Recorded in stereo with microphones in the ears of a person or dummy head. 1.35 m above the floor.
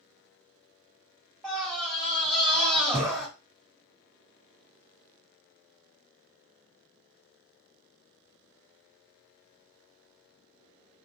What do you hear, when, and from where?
1.4 s a scream: 5° left (ahead or behind), 1.1 m